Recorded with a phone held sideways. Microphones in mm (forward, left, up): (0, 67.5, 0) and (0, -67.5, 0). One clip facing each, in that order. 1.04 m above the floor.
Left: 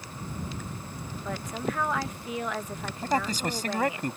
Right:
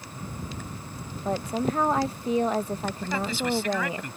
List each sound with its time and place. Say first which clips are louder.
1.2 s a woman speaking: right 6 dB; 30° right (ahead or behind)
3.0 s a man speaking: left 3 dB; 40° left (ahead or behind)